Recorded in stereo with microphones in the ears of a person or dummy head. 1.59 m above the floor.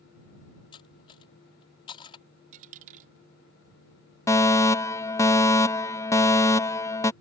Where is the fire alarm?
15° left (ahead or behind).